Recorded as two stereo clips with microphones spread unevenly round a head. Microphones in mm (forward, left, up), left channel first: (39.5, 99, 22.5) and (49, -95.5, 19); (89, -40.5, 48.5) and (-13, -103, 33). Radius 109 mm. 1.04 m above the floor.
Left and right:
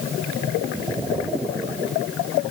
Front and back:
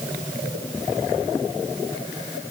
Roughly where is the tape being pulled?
I don't hear tape being pulled.